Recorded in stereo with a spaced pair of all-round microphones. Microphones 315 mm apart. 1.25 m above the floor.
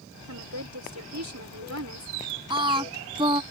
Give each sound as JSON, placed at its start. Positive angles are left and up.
{"t": 0.3, "sound": "a woman speaking", "side_deg": -60}
{"t": 2.5, "sound": "singing", "side_deg": -15}